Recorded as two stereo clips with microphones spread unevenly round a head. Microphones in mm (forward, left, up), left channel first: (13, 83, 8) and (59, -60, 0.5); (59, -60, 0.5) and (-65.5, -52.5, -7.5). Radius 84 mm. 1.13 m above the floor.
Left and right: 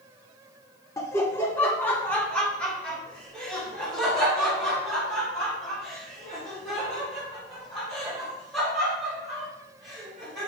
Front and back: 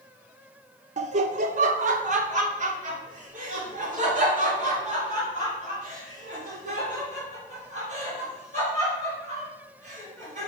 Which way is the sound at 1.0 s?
Straight behind.